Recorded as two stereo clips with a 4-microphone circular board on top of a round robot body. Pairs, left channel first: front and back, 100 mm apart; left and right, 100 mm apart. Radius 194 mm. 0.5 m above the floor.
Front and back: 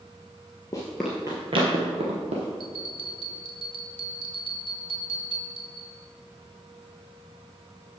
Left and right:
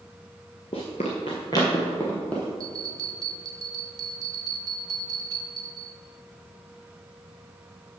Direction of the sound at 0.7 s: 60° left.